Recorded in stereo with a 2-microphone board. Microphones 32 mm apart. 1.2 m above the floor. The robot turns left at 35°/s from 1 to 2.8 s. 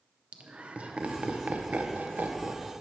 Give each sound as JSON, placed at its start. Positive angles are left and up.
{"t": 0.3, "sound": "laughter", "side_deg": -40, "distance_m": 0.7}